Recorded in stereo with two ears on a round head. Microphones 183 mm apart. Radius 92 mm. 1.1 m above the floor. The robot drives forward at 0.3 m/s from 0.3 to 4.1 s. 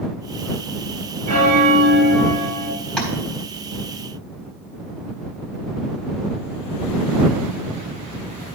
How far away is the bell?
About 4.5 m.